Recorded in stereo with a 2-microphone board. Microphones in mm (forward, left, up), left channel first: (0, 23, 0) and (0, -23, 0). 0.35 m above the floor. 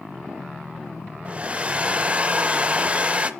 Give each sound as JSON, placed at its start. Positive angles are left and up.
{"t": 1.2, "sound": "a hair dryer", "side_deg": -30, "distance_m": 0.6}